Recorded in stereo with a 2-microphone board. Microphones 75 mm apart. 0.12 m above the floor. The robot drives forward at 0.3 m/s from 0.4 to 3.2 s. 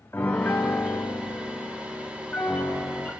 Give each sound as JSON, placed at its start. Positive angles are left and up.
{"t": 0.1, "sound": "a piano", "side_deg": 30, "distance_m": 2.5}